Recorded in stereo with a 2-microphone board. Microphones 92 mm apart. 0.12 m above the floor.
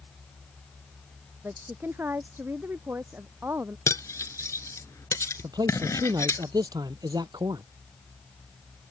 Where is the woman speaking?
25° right (ahead or behind).